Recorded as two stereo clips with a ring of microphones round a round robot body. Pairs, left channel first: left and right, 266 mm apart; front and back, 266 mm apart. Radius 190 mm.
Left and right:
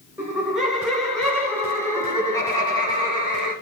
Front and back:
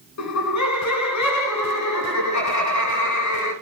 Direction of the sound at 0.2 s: 5° right.